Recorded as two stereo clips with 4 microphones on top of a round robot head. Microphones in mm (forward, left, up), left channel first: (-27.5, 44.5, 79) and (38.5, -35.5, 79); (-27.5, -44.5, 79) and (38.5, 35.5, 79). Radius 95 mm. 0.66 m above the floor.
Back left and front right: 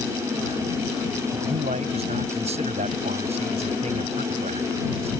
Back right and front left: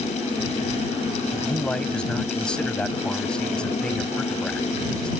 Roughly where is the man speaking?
Ahead right.